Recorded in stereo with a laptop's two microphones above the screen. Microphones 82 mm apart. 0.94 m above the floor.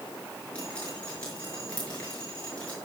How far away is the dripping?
About 6 m.